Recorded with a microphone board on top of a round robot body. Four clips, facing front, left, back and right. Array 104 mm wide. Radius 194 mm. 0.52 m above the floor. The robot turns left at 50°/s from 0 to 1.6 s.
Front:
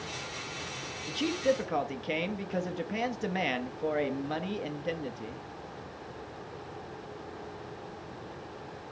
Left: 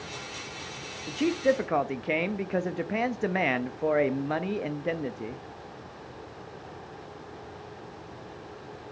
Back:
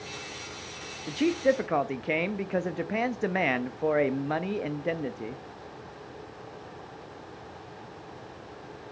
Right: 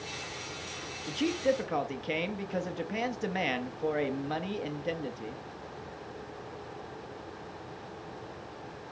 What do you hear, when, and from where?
1.1 s a man speaking: 165° left, 0.8 m; by 5.4 s 140° left, 0.8 m